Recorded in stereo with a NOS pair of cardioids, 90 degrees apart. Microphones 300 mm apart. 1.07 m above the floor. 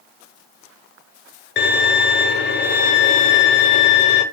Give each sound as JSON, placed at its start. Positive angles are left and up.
{"t": 1.6, "sound": "a violin", "azimuth_deg": 40, "distance_m": 0.5}